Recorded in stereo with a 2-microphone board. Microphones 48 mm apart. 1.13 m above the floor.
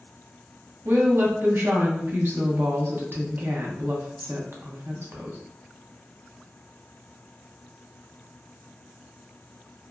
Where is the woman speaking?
50° right (ahead or behind), 0.7 m.